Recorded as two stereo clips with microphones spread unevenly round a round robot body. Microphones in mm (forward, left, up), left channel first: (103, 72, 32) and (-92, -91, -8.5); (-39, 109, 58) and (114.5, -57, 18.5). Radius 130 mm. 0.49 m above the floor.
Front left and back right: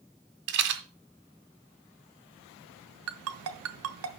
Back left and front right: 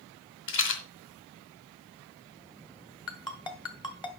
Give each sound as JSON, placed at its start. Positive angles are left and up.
{"t": 0.5, "sound": "a rattle", "azimuth_deg": 175, "distance_m": 1.6}
{"t": 3.1, "sound": "a ringtone", "azimuth_deg": -155, "distance_m": 1.3}